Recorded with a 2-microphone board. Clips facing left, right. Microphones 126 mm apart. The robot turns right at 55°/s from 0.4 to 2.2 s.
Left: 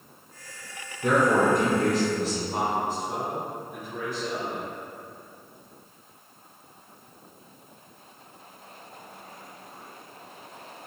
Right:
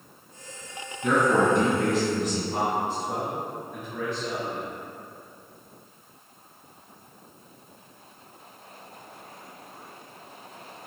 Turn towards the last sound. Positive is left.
turn(degrees=10)  # may be behind; listen again after turning